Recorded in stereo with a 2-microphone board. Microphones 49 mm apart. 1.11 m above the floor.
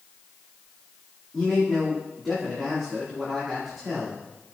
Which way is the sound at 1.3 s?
5° left (ahead or behind).